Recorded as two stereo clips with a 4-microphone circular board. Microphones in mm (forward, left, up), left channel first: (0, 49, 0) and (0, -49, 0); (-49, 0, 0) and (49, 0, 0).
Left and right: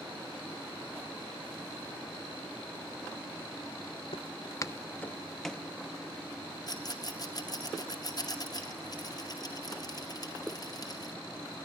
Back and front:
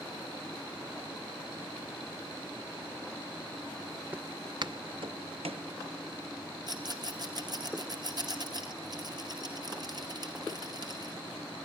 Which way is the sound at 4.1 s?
75° left.